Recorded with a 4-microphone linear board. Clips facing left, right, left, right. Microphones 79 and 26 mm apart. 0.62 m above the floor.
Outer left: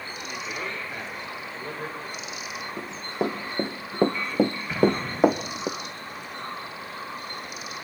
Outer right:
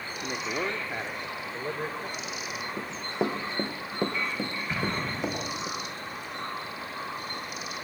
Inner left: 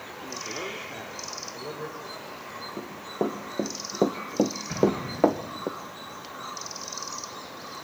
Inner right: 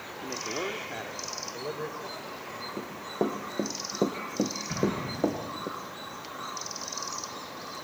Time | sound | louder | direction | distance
0.2 | a man speaking | outer right 3 dB, inner right 2 dB | 35° right (ahead or behind) | 1.3 m
2.8 | running footsteps | outer left 2 dB, inner left 1 dB | centre (ahead or behind) | 2.5 m
4.7 | an explosion | outer left 8 dB, inner left 5 dB | centre (ahead or behind) | 8.5 m